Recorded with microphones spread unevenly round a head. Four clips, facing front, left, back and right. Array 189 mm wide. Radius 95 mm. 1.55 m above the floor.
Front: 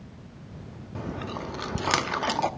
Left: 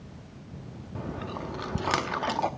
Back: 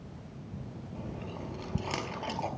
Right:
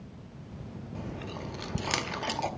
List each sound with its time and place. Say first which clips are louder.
0.9 s chewing: left 5 dB, front 8 dB; 25° left, 1.1 m